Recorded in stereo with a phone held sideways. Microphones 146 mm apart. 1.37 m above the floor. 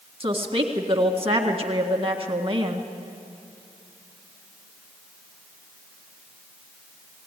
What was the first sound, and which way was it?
A woman speaking, 40° right (ahead or behind).